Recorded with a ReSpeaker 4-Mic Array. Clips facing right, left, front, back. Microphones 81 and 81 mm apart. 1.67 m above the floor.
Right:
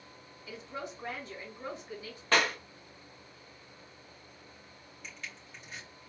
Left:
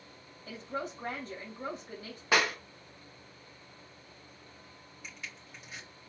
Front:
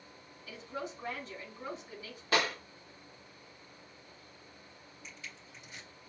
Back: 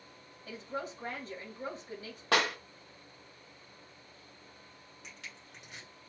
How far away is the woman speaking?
About 3 m.